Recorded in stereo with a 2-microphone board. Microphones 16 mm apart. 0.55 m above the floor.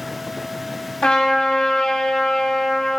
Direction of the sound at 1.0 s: 75° left (ahead or behind).